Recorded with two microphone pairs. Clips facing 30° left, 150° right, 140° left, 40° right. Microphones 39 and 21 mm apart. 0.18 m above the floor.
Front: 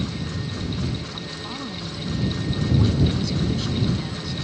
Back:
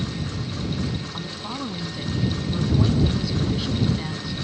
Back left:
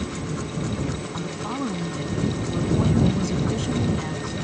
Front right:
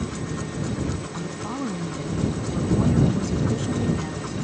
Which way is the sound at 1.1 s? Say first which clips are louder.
Back 1 dB, back left 1 dB; 155° left.